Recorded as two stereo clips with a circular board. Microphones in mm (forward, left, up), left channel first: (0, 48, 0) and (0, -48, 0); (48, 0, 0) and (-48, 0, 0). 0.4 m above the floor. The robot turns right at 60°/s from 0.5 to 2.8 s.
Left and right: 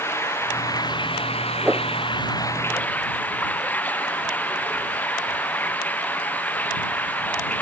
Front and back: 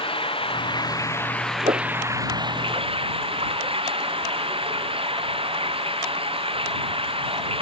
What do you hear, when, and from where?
0.0 s running water: 25° left; by 7.6 s 165° left
1.6 s a whoosh: 170° right; by 1.9 s 155° right